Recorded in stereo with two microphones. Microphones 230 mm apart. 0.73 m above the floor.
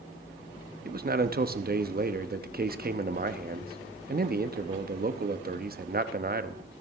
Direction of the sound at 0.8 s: 40° right (ahead or behind).